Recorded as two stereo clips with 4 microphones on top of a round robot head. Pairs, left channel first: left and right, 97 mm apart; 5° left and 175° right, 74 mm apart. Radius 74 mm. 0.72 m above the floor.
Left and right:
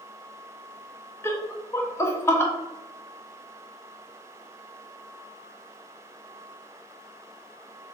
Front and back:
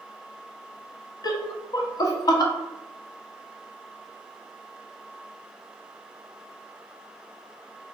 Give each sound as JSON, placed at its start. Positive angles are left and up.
{"t": 1.2, "sound": "laughter", "azimuth_deg": 25, "distance_m": 1.0}